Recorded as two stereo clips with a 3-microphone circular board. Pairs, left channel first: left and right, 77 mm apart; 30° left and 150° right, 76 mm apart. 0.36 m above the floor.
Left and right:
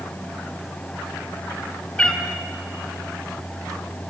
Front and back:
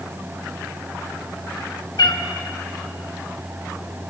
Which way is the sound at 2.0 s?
20° left.